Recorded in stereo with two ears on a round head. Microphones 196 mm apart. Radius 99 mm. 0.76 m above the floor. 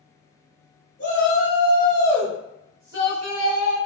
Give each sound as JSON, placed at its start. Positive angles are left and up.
{"t": 1.0, "sound": "a shout", "side_deg": 40, "distance_m": 1.2}